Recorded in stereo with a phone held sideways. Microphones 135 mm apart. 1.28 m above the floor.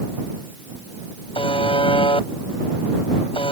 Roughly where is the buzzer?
Left.